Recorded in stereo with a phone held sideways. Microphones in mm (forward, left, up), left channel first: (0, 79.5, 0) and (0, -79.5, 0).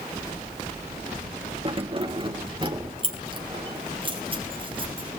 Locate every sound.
1.6 s keys jangling: 35° right (ahead or behind), 1.2 m